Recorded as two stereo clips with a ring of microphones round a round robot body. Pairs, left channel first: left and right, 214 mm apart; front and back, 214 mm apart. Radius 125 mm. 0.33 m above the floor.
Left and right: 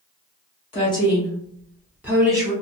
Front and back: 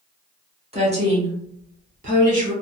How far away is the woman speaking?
About 1.3 m.